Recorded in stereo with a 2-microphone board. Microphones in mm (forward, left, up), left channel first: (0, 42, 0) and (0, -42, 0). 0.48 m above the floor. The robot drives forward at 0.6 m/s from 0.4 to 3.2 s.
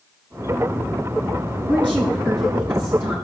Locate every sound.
1.6 s a woman speaking: 20° left (ahead or behind), 4 m; by 3.2 s 15° left (ahead or behind), 4.5 m